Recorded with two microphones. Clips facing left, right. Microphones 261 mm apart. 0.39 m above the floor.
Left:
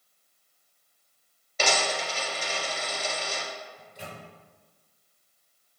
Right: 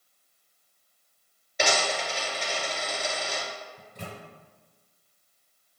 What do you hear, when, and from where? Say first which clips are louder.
1.6 s a dropped coin: right 1 dB; 15° right (ahead or behind), 1.9 m
3.8 s a microwave: right 2 dB; 60° right (ahead or behind), 1.8 m